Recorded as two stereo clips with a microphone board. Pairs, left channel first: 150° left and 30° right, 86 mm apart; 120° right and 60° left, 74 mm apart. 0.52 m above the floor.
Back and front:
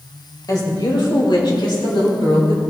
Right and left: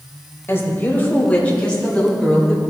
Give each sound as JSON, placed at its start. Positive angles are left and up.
{"t": 0.5, "sound": "a woman speaking", "azimuth_deg": -175, "distance_m": 2.5}